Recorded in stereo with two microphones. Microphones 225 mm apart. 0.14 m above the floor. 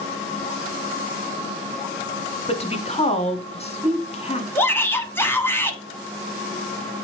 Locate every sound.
2.5 s a woman speaking: 30° left (ahead or behind), 1.3 m
4.5 s a shout: 10° left (ahead or behind), 1.1 m